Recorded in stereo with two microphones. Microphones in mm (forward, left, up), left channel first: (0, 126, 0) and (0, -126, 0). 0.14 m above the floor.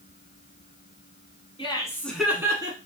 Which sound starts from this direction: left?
Laughter, at 1.6 s.